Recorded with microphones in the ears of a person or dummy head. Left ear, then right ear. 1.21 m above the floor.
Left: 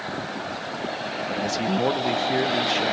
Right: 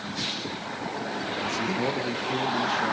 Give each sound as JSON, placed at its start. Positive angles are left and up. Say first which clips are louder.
{"t": 1.3, "sound": "a man speaking", "louder": "left 3 dB", "side_deg": 60, "distance_m": 1.0}